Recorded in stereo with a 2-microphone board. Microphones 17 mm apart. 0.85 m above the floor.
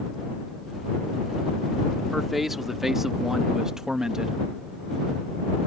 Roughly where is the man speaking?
Centre.